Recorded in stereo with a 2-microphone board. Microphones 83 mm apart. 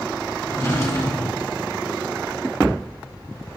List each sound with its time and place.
0.5 s a drawer: 35° left (ahead or behind), 1.9 m